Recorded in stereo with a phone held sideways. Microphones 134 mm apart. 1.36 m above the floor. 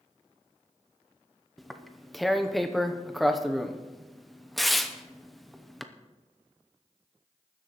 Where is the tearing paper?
Centre (ahead or behind), 0.8 m.